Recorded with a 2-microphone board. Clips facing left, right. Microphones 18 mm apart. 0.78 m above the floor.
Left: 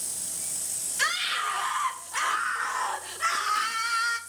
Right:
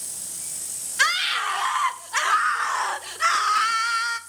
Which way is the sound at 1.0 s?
65° right (ahead or behind).